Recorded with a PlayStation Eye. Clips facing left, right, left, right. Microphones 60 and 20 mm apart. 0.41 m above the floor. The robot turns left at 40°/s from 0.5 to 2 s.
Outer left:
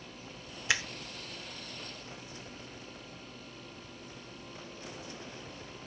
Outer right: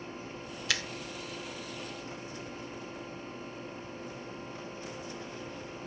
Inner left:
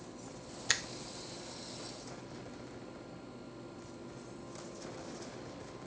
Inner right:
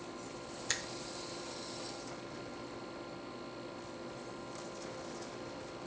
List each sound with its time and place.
0.7 s a finger snap: 20° left (ahead or behind), 0.5 m